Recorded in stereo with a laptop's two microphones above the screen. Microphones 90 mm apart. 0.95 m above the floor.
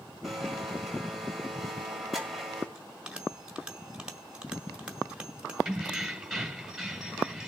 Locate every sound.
0.2 s a blender: centre (ahead or behind), 2.0 m
2.8 s a bell: 10° right (ahead or behind), 1.5 m
5.7 s keys jangling: centre (ahead or behind), 2.0 m